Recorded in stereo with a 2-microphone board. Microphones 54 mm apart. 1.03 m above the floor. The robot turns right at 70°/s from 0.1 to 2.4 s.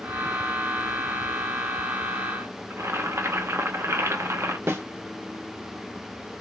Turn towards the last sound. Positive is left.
turn(degrees=-45)  # may be behind; listen again after turning